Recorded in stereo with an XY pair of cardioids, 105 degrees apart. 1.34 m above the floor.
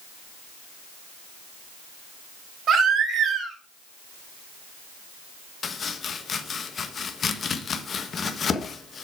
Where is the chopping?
45° left, 1.1 m.